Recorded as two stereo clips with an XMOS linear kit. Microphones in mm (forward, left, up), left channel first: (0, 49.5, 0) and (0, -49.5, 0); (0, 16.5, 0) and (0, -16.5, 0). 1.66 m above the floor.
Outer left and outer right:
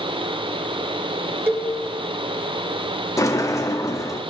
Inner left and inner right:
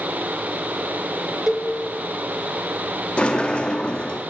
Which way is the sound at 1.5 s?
20° right (ahead or behind).